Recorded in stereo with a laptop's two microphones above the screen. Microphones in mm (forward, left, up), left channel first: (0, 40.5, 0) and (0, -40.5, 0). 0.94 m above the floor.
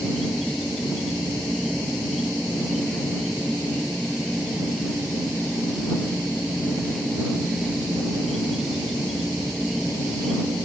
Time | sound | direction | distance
0.0 | an insect | centre (ahead or behind) | ?